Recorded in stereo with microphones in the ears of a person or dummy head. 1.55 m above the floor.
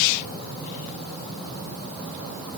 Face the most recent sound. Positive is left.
No sound to turn to.